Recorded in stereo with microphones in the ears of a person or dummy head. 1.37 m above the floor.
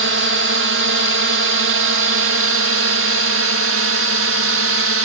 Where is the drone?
60° right (ahead or behind); by 5.0 s 65° right (ahead or behind).